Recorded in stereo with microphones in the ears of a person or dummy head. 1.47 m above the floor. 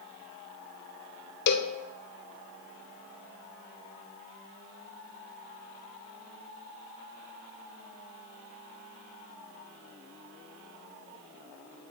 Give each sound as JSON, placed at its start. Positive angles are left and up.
{"t": 1.5, "sound": "a cowbell", "side_deg": 60, "distance_m": 0.8}